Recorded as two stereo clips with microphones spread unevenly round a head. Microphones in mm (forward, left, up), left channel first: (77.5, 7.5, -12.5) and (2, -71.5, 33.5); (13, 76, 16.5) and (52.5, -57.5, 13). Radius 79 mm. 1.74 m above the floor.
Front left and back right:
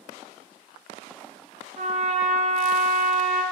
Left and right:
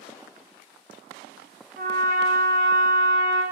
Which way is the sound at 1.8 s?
115° right.